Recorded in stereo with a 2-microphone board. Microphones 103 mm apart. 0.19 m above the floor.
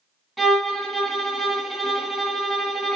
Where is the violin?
Centre (ahead or behind), 0.9 m.